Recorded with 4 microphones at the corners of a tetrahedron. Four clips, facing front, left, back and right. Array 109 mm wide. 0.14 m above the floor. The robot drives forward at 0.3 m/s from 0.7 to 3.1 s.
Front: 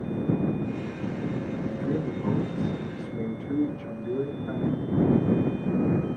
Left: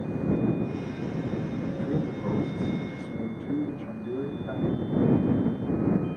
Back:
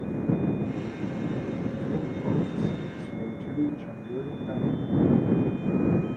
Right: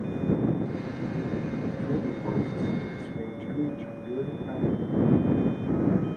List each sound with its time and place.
1.7 s a man speaking: 15° left, 1.3 m; by 4.8 s 25° left, 1.1 m